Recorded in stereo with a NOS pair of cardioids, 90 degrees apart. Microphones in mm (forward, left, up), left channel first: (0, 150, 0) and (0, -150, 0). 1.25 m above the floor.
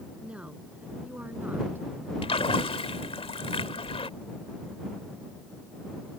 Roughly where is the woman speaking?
Ahead.